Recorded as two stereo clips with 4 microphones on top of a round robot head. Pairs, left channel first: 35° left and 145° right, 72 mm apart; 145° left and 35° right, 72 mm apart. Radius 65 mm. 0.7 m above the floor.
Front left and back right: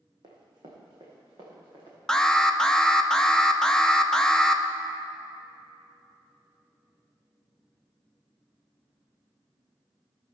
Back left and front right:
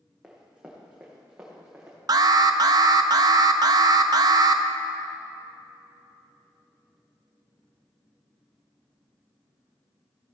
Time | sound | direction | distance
0.2 | running footsteps | 120° right | 2 m
2.1 | an alarm | 45° right | 0.7 m